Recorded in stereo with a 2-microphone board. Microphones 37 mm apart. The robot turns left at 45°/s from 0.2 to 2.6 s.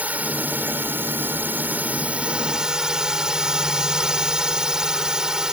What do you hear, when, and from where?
0.0 s a drone: 55° right; by 5.5 s 160° right